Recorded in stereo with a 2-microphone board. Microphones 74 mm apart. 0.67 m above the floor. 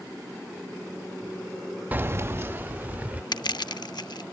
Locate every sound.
1.9 s keys jangling: 20° right (ahead or behind)
3.3 s crushing: 70° left (ahead or behind)